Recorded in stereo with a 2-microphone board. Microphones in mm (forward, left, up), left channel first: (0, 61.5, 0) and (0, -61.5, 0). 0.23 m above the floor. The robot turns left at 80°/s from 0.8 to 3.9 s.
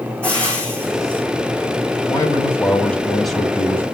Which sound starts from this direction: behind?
Frying, at 0.2 s.